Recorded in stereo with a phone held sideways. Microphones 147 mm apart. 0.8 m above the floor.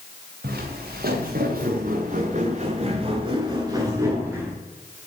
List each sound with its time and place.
0.4 s footsteps: 80° right, 4.5 m; by 4.6 s 15° right (ahead or behind), 5.5 m